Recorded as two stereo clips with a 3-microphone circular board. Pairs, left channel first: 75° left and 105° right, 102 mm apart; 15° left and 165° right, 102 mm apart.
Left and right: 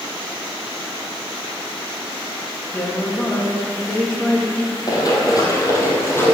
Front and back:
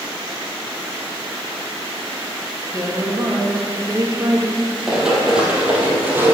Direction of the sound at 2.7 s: 145° left.